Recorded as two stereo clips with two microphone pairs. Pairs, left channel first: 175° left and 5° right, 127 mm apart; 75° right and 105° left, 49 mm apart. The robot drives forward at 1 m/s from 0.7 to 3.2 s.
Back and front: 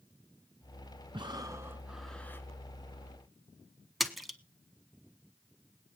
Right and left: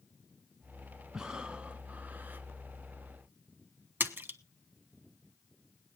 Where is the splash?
85° left, 1.0 m.